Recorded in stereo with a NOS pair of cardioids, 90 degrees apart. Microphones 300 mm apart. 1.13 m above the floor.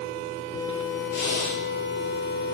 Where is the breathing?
60° left, 7 m.